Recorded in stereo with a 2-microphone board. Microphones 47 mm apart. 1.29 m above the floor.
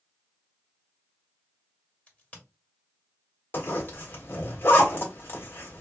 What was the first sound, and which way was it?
A crack, 30° left (ahead or behind).